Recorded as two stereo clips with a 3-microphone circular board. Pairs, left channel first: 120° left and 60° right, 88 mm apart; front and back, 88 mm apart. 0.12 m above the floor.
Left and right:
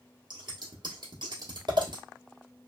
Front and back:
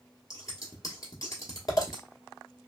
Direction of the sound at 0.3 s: 40° right.